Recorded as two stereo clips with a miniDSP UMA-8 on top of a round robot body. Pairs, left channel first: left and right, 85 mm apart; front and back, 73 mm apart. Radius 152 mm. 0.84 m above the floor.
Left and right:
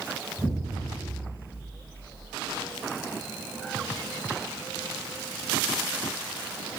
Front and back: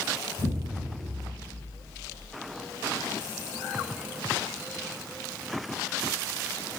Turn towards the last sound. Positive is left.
turn(degrees=160)